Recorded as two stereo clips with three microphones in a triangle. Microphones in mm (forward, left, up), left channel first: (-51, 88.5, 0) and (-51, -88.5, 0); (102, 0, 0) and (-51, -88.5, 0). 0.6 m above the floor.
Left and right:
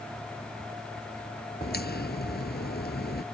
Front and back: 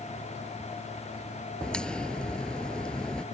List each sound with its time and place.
1.6 s a crack: 115° left